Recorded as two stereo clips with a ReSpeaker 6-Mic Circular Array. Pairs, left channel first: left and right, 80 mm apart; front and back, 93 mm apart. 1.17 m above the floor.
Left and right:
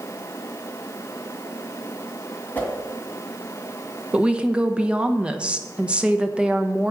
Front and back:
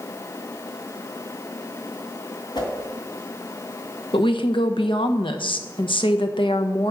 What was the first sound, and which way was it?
A whoosh, 25° left.